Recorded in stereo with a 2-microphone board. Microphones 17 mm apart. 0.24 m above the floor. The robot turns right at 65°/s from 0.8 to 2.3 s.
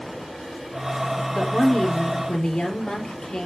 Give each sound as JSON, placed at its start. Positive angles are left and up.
{"t": 1.3, "sound": "a woman speaking", "azimuth_deg": 50, "distance_m": 4.5}